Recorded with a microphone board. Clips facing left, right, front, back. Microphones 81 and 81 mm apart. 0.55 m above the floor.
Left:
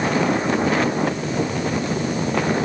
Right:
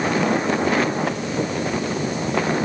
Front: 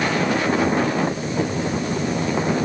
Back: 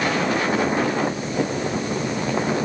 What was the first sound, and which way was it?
Only background noise.